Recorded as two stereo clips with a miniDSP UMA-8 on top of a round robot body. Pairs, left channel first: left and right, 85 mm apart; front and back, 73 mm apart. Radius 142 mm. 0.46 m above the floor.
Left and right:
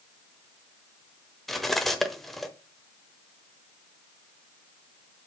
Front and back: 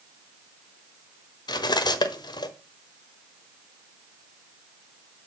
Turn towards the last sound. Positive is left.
turn(degrees=0)